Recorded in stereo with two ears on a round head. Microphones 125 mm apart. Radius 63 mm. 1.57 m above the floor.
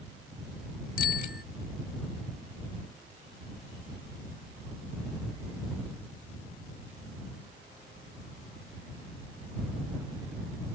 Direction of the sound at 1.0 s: 60° left (ahead or behind).